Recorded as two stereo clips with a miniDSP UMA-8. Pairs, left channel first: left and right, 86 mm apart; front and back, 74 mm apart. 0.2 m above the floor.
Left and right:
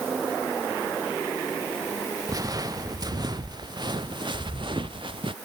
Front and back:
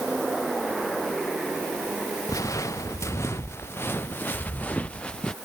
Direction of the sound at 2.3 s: 45° right.